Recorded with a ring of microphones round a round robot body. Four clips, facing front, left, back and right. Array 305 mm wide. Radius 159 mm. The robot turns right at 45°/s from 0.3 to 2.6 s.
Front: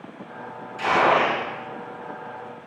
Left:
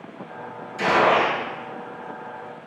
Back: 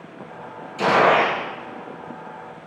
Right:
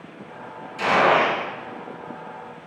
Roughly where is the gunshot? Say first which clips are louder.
Even, back 3 dB; behind left.